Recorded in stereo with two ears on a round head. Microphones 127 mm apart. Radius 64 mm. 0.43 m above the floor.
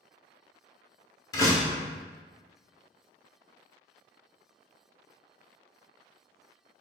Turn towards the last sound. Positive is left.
turn(degrees=25)  # may be behind; listen again after turning